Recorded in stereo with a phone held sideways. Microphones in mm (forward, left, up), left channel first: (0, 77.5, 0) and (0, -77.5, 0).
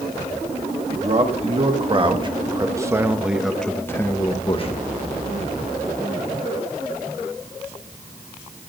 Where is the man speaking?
45° right (ahead or behind), 1.7 m; by 4.8 s 45° left (ahead or behind), 1.0 m.